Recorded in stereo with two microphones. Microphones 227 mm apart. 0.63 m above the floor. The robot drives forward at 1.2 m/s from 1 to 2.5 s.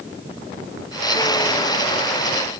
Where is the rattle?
I don't hear a rattle.